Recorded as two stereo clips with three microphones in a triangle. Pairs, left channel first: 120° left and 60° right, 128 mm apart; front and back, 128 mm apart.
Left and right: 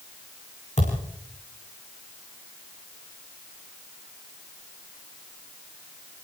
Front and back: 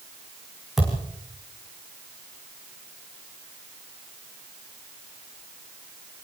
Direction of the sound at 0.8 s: 90° left.